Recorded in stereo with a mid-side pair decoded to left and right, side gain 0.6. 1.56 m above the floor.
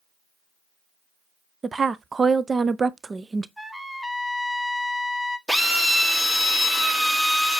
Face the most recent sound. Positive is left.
turn(degrees=-10)